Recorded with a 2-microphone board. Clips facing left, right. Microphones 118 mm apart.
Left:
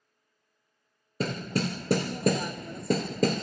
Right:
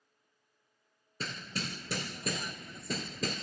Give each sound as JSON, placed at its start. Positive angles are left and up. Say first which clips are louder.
{"t": 1.2, "sound": "hammering", "louder": "left 11 dB", "side_deg": 55}